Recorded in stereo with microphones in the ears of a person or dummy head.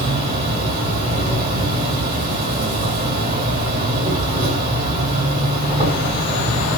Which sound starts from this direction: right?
An insect, at 0.0 s.